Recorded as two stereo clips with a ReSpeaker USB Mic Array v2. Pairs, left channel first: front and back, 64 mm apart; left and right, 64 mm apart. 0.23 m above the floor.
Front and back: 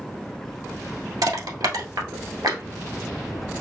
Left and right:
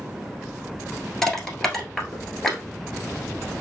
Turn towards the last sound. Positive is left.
turn(degrees=175)